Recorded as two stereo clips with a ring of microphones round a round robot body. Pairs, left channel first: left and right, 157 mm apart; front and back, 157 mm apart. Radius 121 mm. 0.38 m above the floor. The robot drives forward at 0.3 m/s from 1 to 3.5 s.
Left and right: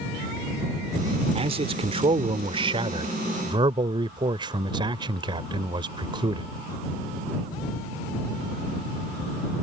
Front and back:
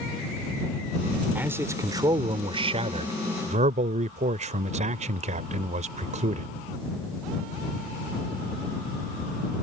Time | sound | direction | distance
1.4 | a man speaking | 105° right | ?